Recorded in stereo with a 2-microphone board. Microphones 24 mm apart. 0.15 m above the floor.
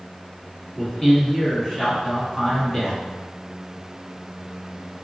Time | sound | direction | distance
0.8 | a man speaking | 25° left (ahead or behind) | 1.2 m